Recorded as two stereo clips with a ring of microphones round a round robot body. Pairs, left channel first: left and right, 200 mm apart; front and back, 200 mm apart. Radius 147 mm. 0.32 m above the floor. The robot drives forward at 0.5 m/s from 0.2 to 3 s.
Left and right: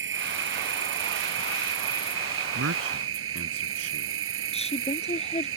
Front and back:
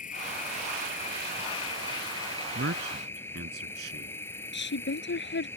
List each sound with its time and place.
0.0 s an insect: 65° right; by 5.6 s 85° right
2.5 s a man speaking: 130° right
4.5 s a woman speaking: 30° left